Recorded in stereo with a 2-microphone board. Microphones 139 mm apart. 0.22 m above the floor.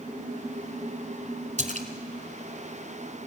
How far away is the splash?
About 1.4 m.